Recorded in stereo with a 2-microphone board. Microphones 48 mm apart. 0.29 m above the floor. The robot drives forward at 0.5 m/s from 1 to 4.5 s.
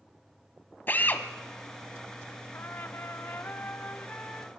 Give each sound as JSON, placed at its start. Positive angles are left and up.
{"t": 0.9, "sound": "a drill", "side_deg": 40, "distance_m": 1.3}
{"t": 2.5, "sound": "a trumpet", "side_deg": 45, "distance_m": 0.6}